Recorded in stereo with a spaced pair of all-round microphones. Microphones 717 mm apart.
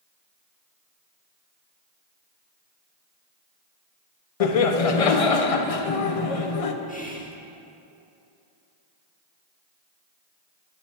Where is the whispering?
10° left (ahead or behind), 1.0 m.